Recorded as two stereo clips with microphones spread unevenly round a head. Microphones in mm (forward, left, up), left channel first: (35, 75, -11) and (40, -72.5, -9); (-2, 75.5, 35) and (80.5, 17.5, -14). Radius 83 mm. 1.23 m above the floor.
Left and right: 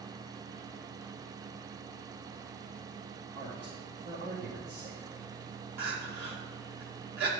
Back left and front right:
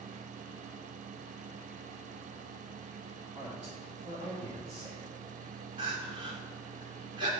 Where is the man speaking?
100° right, 2.5 m.